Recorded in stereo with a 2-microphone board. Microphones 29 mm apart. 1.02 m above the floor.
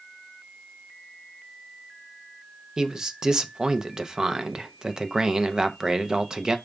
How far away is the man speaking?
About 0.5 m.